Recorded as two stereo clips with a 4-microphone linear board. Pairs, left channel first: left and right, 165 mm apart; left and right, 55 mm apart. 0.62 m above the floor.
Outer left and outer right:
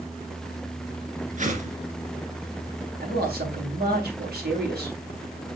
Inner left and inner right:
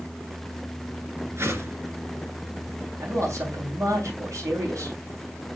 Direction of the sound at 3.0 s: 75° right (ahead or behind).